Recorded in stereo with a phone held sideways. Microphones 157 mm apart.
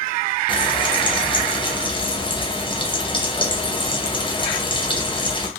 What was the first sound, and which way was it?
Frying, 30° left (ahead or behind).